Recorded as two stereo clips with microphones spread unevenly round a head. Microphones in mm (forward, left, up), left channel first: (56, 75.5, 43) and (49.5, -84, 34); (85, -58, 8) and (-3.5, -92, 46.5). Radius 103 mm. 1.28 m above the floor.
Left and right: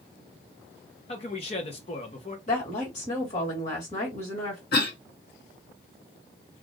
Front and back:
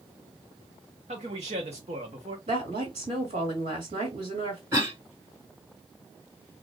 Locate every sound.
1.1 s a man speaking: 150° left, 0.8 m
2.5 s a woman speaking: 145° left, 1.5 m
4.7 s a cough: 125° left, 1.6 m